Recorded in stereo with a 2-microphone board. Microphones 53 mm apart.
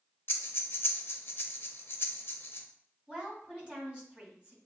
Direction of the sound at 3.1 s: 15° right (ahead or behind).